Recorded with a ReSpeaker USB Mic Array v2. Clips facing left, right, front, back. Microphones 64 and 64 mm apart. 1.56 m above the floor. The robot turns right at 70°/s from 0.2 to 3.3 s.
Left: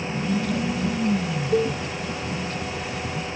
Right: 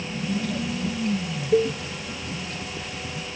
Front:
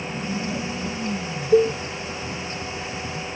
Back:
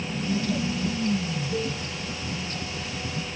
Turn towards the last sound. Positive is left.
turn(degrees=110)